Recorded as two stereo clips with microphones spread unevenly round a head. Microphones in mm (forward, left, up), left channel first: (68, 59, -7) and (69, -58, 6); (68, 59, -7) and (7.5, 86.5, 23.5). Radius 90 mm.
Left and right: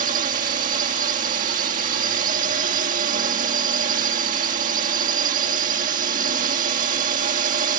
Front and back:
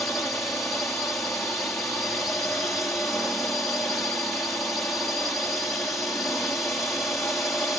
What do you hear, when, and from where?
0.0 s a drone: 105° right